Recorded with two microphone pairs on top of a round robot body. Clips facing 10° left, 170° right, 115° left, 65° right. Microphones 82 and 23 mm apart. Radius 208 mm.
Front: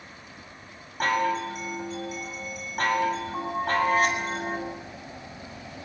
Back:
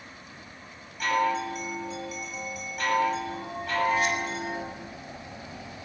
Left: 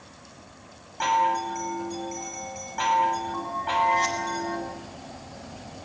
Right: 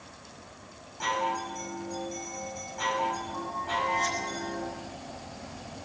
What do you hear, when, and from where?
1.0 s a chime: 60° left, 7 m